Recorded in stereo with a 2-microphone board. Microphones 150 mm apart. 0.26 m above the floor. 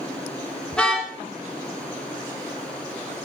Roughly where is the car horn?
Centre.